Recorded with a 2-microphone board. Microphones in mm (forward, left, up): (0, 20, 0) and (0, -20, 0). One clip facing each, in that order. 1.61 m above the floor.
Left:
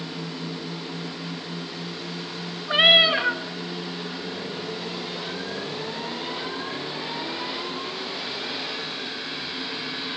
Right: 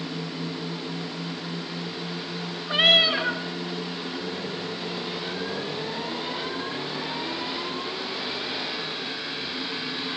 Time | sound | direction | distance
2.7 | a cat meowing | 15° left (ahead or behind) | 1.1 m